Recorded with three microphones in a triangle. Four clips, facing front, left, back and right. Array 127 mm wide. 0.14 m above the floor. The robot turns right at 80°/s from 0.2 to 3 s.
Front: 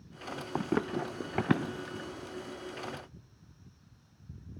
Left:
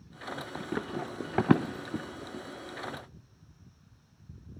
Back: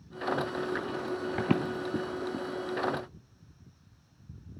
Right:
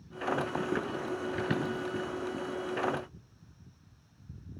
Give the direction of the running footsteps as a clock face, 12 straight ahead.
1 o'clock.